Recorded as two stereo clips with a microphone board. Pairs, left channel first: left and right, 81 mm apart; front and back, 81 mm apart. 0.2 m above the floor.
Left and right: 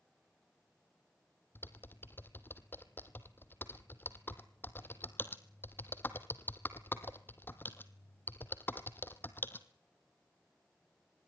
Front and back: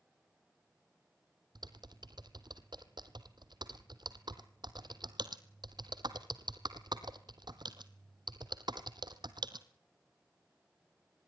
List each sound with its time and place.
1.6 s typing on a keyboard: 155° left, 1.7 m